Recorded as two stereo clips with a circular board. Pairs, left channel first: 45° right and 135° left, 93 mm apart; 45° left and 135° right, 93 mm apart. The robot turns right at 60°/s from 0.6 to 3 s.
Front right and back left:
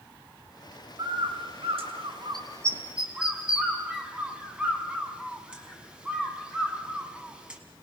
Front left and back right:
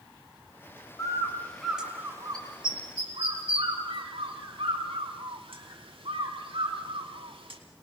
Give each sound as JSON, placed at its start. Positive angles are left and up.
{"t": 1.0, "sound": "a bird", "azimuth_deg": 95, "distance_m": 3.0}